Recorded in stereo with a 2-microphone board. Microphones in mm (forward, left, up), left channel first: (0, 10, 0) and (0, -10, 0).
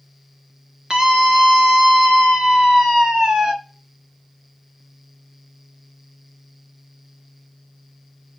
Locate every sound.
0.9 s a scream: 50° right (ahead or behind), 1.7 m